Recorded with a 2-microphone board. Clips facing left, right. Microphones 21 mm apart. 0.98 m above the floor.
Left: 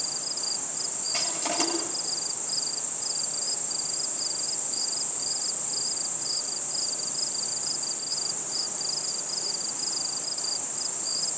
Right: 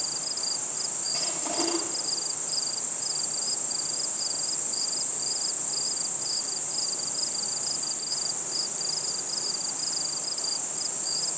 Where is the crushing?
50° left (ahead or behind), 10 m.